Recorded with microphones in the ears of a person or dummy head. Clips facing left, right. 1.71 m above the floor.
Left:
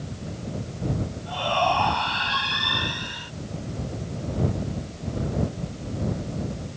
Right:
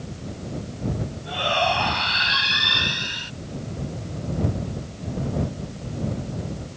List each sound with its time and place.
1.2 s a shout: 25° right (ahead or behind); by 3.3 s 35° right (ahead or behind)